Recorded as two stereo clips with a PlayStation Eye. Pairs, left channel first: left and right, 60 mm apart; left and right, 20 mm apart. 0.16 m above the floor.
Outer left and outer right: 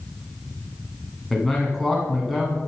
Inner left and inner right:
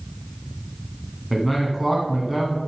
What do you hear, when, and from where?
1.3 s a man speaking: centre (ahead or behind), 1.4 m